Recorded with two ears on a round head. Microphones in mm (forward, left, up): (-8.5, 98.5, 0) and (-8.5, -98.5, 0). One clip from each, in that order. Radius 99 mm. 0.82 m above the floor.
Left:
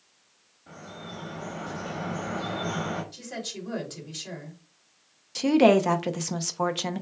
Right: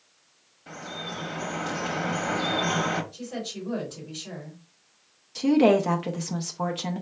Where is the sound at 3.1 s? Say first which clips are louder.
Right 1 dB; 60° left (ahead or behind), 2.5 m.